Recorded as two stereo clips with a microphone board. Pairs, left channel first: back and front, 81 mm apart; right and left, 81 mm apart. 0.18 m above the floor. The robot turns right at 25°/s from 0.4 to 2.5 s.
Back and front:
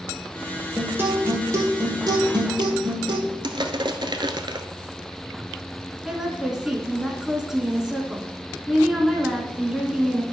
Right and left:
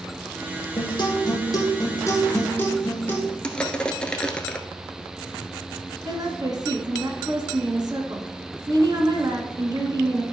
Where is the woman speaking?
80° left, 1.6 m.